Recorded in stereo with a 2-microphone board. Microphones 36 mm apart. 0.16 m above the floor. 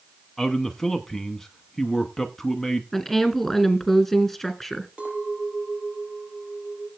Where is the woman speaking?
Centre (ahead or behind), 2.5 m.